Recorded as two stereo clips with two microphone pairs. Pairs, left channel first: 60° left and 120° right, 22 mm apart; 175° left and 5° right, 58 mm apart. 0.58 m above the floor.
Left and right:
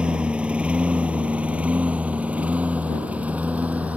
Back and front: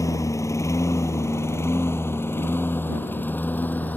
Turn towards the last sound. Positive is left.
turn(degrees=-120)